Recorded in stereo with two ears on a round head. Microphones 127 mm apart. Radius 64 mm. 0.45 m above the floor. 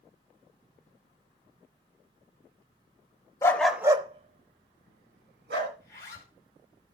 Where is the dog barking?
20° left (ahead or behind), 0.8 m; by 5.7 s 85° right, 2 m.